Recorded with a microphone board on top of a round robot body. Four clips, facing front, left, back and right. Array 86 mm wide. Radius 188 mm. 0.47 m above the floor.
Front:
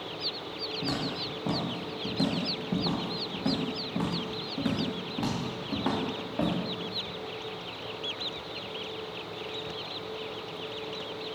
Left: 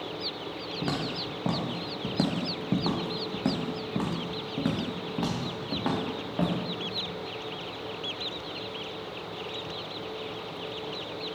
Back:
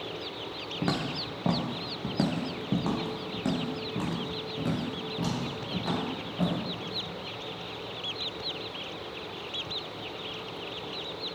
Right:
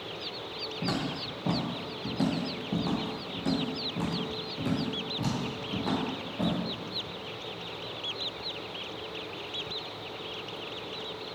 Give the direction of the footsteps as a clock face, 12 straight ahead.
7 o'clock.